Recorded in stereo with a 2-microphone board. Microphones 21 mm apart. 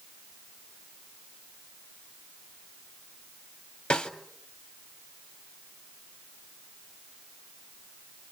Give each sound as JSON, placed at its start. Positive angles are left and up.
{"t": 3.9, "sound": "a snare drum", "side_deg": 70, "distance_m": 2.0}